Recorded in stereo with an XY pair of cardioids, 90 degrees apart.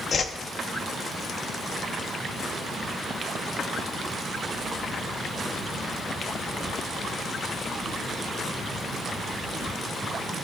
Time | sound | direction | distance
0.1 | a whoosh | 50° left | 0.7 m